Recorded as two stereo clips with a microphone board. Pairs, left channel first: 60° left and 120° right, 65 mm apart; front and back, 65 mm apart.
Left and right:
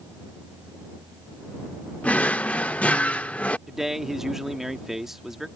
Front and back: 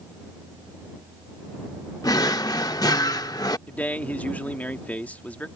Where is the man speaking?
40° right.